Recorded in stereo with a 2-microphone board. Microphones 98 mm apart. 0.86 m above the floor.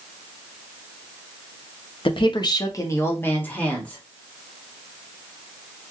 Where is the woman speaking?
60° left (ahead or behind), 0.5 m; by 4.0 s 10° left (ahead or behind), 1.4 m.